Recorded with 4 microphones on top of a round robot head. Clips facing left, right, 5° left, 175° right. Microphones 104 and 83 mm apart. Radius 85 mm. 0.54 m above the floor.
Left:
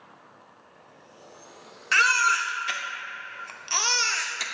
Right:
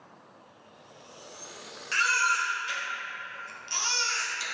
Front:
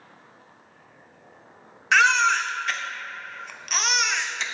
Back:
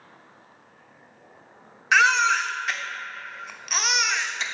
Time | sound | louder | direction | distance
1.9 | a baby crying | left 4 dB, even | 100° left | 0.7 m